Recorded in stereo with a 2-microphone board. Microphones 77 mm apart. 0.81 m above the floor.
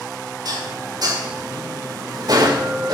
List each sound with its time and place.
0.5 s dishes clattering: 60° right (ahead or behind), 1.9 m